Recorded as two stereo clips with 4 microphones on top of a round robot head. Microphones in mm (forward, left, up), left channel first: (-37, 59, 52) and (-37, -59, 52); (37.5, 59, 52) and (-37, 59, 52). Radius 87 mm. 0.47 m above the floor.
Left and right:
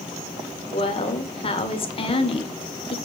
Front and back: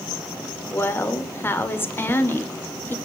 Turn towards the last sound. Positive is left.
turn(degrees=55)